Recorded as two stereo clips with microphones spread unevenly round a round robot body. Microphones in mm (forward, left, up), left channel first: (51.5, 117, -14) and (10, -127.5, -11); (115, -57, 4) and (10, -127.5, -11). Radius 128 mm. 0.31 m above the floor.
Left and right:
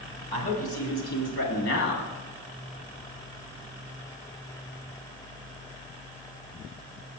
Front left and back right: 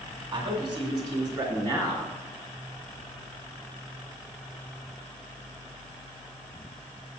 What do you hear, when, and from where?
0.3 s a man speaking: 140° left, 2 m; by 2.1 s 110° left, 2.5 m